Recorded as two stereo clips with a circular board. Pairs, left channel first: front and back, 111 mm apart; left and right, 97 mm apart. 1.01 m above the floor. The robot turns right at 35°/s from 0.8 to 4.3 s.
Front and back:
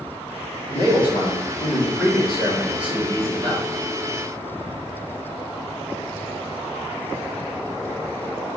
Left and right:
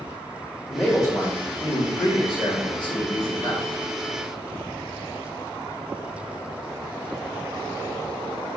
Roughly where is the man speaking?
Ahead left.